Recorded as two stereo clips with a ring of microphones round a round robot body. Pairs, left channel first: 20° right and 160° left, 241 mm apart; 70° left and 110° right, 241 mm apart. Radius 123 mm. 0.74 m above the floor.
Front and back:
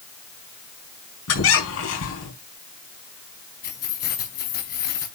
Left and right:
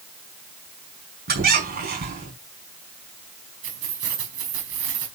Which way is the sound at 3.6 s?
75° right.